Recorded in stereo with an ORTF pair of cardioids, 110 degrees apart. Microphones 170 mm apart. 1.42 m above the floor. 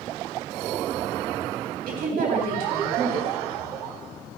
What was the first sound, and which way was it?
A woman speaking, 60° right.